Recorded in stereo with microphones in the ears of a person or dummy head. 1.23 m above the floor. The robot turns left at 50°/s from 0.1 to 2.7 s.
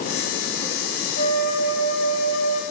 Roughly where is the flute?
Behind left.